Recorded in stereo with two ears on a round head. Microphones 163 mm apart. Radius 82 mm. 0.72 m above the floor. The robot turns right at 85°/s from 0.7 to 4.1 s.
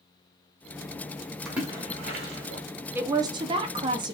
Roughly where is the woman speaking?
Centre.